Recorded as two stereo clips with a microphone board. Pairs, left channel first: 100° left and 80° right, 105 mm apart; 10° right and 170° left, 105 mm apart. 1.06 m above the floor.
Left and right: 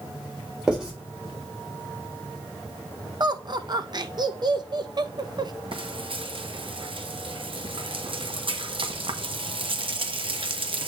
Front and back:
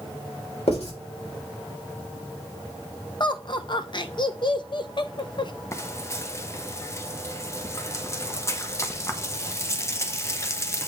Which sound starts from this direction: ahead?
Writing, at 0.7 s.